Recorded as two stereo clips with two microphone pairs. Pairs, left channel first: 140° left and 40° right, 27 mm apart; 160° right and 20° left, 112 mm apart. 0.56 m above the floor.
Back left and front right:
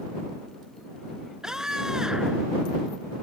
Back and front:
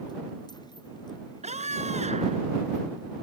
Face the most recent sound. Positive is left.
turn(degrees=25)